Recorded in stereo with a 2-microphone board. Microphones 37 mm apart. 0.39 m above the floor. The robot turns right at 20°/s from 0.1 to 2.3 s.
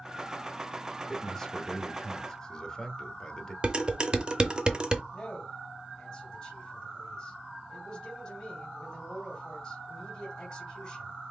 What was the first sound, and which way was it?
A man speaking, 10° left (ahead or behind).